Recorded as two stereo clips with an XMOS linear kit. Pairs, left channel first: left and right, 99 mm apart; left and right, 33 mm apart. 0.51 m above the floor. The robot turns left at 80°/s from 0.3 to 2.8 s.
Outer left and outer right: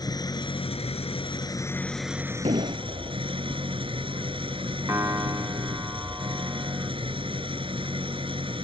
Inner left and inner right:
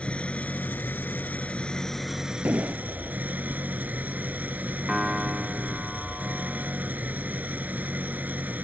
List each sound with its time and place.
0.0 s an engine running: 135° left; by 8.7 s 65° right
2.5 s an explosion: 85° right; by 3.2 s 60° right (ahead or behind)
4.9 s a piano: 30° right (ahead or behind)